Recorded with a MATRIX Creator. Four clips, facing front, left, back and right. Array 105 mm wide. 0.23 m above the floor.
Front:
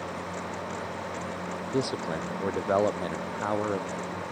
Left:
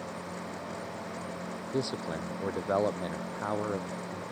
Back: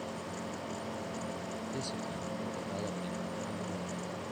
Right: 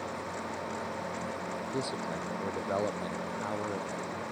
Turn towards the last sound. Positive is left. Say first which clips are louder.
# left 4 dB, front 9 dB
turn(degrees=15)